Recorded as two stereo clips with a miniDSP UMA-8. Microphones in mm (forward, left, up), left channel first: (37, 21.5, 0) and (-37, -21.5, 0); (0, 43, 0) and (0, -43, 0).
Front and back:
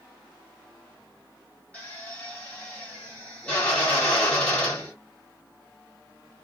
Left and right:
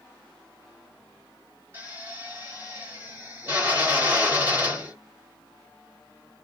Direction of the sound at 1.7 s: 40° right.